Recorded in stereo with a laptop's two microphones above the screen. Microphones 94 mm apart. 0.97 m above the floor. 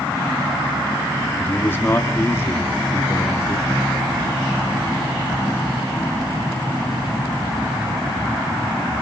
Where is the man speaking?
20° left (ahead or behind), 1.1 m; by 3.8 s 30° left (ahead or behind), 2.5 m.